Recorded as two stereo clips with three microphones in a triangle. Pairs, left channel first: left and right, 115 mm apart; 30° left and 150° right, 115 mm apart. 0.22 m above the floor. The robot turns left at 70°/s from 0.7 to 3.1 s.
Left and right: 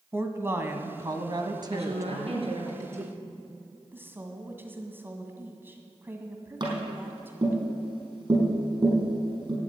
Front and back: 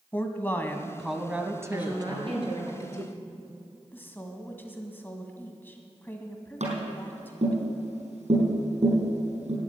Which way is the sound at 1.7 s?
70° right.